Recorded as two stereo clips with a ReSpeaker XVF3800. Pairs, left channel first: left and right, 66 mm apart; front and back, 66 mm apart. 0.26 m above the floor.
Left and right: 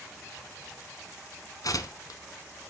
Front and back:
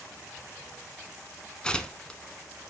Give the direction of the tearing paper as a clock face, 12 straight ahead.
9 o'clock.